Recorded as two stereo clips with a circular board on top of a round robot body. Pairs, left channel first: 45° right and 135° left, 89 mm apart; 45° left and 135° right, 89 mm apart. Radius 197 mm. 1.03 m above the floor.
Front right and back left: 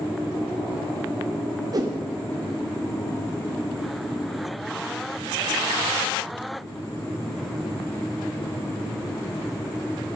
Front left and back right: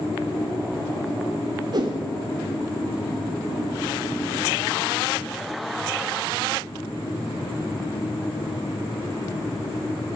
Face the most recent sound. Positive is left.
turn(degrees=180)